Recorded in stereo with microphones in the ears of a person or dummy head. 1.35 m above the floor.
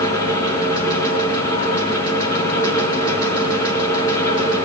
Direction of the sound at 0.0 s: 20° left (ahead or behind).